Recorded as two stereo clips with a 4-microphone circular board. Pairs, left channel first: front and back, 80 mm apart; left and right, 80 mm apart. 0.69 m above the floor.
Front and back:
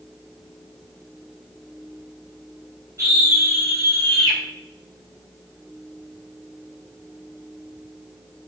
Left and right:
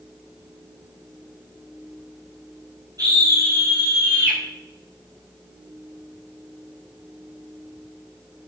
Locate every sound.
3.0 s a scream: 130° right, 4 m; by 4.4 s 145° right, 4.5 m